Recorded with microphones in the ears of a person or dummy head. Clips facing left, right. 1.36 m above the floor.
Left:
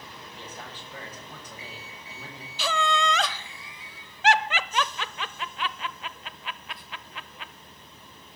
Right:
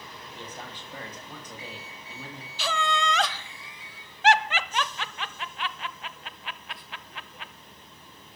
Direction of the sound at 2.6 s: 70° left (ahead or behind).